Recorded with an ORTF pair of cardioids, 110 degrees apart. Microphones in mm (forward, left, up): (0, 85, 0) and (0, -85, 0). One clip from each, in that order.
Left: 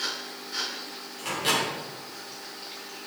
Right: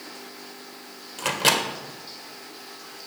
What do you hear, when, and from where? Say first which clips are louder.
1.2 s a microwave: right 5 dB; 65° right, 1.7 m